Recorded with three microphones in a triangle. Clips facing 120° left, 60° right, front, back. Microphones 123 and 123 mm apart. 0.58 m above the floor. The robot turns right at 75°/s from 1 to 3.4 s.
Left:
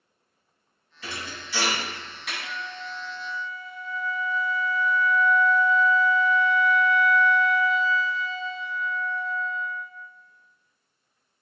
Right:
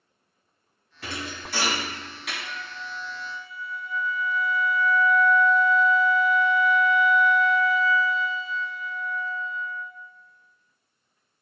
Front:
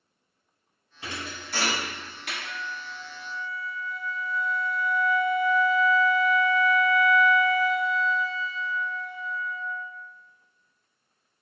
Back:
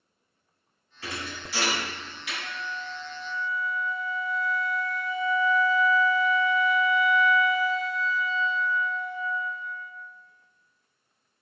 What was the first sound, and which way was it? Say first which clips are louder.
A thud: right 3 dB, back 1 dB; 65° right.